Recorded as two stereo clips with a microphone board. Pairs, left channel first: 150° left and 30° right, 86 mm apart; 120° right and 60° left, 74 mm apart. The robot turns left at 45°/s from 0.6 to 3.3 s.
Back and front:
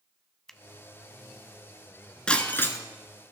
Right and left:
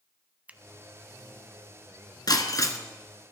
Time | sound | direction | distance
0.5 | a finger snap | 80° left | 0.8 m
2.3 | breaking glass | 130° right | 1.2 m